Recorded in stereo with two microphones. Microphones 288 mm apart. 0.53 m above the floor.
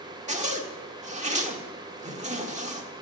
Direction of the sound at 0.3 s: 25° right (ahead or behind).